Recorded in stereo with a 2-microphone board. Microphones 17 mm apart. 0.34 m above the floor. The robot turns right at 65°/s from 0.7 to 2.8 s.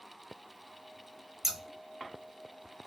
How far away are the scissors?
About 0.8 m.